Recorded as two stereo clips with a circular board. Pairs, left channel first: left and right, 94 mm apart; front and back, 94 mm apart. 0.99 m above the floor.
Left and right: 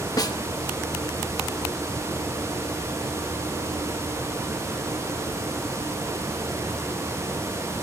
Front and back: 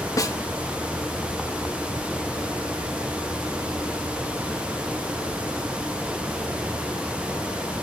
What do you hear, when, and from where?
0.2 s a snare drum: 50° left, 1.3 m